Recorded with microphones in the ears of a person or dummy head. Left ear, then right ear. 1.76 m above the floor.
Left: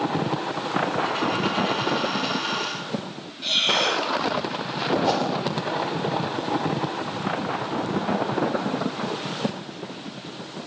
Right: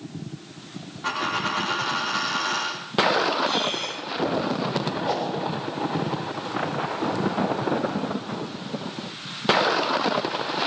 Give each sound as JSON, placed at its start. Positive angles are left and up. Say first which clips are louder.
{"t": 1.0, "sound": "a dropped coin", "louder": "left 1 dB", "side_deg": -20, "distance_m": 8.5}
{"t": 3.4, "sound": "breathing", "louder": "left 4 dB", "side_deg": 40, "distance_m": 3.5}
{"t": 5.0, "sound": "a whoosh", "louder": "left 2 dB", "side_deg": 55, "distance_m": 8.0}